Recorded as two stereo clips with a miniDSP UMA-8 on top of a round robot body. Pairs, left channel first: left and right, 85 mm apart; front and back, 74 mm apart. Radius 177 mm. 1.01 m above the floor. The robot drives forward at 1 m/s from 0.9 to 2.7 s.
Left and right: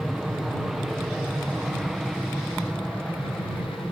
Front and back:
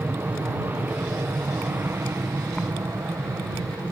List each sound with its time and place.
0.0 s an aircraft: 175° right